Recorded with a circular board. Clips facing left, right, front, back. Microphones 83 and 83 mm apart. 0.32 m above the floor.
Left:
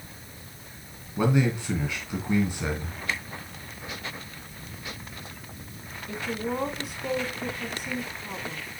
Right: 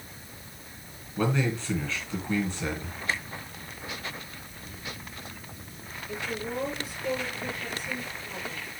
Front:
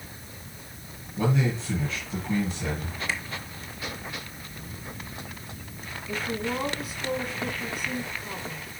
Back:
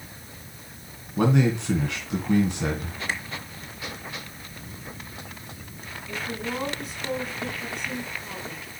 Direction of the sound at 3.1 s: 140° right.